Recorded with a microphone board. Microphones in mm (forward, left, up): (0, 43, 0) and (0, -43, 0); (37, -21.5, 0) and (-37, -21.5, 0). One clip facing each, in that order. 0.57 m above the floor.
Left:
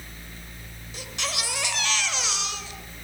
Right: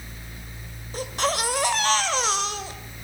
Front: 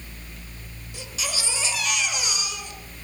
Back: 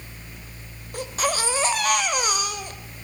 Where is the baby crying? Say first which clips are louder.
Right 8 dB, back 9 dB; 135° right, 1.9 m.